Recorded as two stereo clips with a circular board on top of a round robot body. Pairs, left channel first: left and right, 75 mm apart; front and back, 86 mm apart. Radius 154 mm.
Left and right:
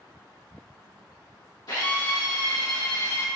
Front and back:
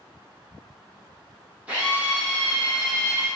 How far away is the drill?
About 1.9 m.